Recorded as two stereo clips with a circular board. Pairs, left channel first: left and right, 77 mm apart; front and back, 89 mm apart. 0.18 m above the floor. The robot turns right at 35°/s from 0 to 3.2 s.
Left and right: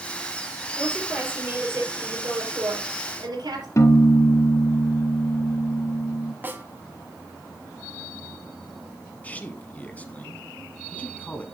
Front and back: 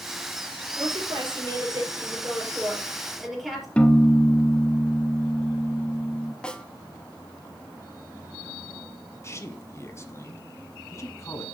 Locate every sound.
0.8 s a woman speaking: 175° right, 4.5 m; by 3.7 s 90° right, 4.5 m
3.8 s a piano: 70° left, 0.8 m
6.4 s a snare drum: 65° right, 1.0 m
9.2 s a man speaking: 30° left, 1.2 m